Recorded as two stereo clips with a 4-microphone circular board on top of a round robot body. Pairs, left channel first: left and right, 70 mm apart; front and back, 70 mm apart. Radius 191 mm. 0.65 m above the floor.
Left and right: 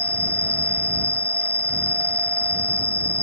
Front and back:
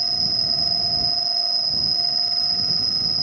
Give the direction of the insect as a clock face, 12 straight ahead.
7 o'clock.